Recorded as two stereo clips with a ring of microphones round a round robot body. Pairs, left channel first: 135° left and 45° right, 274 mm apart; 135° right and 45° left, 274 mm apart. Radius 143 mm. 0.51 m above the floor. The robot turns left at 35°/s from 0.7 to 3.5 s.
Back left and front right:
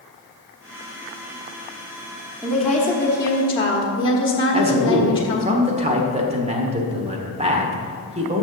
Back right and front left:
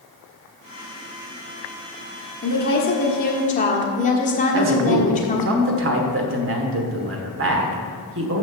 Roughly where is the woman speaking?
Behind right.